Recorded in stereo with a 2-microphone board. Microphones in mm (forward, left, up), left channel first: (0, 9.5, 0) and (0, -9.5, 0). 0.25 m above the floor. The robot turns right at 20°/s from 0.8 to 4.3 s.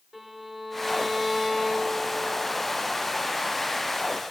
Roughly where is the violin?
Centre.